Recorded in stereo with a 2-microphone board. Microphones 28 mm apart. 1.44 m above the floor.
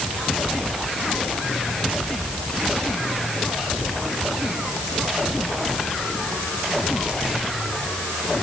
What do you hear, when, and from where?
Only background noise.